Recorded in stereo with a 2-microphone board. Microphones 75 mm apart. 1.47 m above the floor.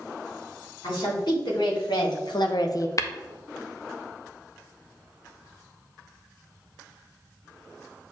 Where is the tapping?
45° left (ahead or behind), 0.6 m.